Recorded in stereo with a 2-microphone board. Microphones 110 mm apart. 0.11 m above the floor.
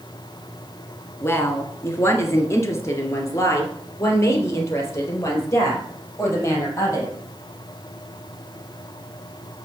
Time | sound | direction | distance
1.2 | a woman speaking | 25° left (ahead or behind) | 1.5 m